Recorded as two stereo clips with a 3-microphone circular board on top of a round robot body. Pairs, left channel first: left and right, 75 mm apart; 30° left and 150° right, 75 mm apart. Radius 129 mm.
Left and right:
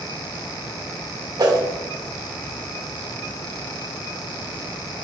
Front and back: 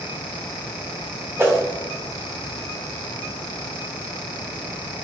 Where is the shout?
I don't hear a shout.